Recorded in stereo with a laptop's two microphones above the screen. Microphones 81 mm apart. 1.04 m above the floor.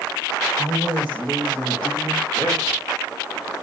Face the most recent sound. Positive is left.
turn(degrees=65)  # may be behind; listen again after turning